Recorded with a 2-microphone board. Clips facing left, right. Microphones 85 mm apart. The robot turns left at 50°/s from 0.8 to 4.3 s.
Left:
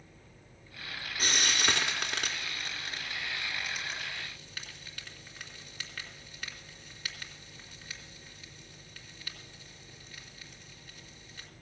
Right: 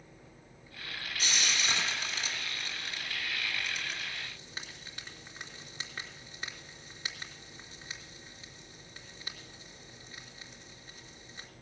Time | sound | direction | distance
1.2 | frying | 45° left (ahead or behind) | 3 m